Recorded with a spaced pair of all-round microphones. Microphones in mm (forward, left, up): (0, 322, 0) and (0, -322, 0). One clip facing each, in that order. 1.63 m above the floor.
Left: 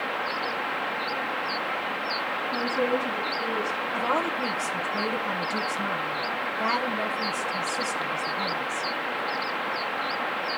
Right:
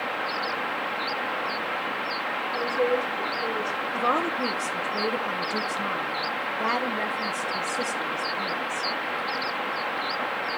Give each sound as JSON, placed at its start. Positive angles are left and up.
{"t": 2.5, "sound": "a woman speaking", "side_deg": 85, "distance_m": 4.0}
{"t": 3.9, "sound": "a woman speaking", "side_deg": 20, "distance_m": 1.1}